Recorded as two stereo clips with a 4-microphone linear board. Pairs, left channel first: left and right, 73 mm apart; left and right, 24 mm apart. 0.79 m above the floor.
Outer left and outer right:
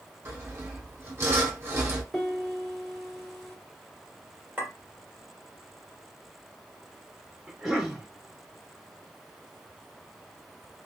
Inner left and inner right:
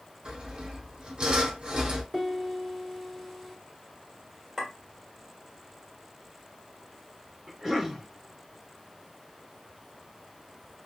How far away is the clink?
About 2 m.